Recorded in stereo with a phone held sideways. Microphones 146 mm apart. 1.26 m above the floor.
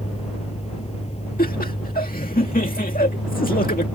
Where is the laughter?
80° left.